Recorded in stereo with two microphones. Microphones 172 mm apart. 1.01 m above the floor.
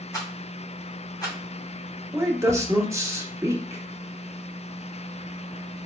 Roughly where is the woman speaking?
Centre.